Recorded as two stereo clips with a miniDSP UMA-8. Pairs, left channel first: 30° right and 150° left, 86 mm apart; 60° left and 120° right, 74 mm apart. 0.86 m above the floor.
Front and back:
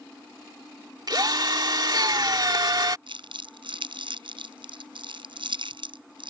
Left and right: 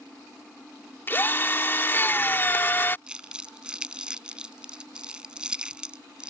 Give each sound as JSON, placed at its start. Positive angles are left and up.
{"t": 1.1, "sound": "a drill", "azimuth_deg": 120}
{"t": 3.1, "sound": "crumpling", "azimuth_deg": 160}